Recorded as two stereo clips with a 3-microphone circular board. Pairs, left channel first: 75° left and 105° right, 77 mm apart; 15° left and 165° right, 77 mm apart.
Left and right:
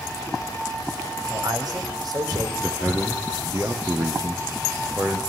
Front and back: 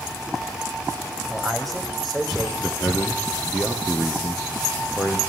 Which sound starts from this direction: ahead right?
A man speaking, at 2.6 s.